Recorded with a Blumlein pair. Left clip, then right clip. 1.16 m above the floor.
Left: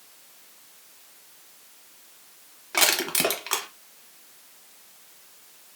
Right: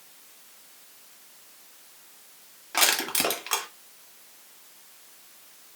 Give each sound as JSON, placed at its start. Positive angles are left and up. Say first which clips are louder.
{"t": 2.7, "sound": "crushing", "louder": "left 1 dB", "azimuth_deg": 10, "distance_m": 0.9}